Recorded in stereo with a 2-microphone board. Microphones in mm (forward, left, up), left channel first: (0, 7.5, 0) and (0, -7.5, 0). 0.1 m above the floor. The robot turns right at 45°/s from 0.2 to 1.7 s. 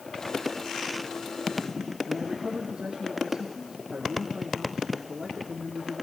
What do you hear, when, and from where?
2.1 s a man speaking: 65° right (ahead or behind), 4.5 m